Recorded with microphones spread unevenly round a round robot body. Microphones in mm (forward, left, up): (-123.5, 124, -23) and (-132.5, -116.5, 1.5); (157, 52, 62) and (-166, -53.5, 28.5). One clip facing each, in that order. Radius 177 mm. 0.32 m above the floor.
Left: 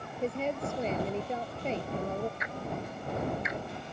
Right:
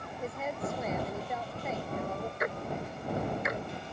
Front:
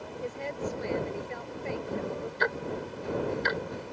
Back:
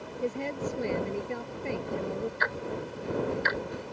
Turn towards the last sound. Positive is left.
turn(degrees=-30)